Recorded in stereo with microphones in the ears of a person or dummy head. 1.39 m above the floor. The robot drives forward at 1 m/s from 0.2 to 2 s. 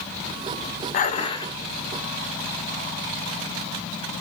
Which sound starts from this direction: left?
Dishes clattering, at 0.9 s.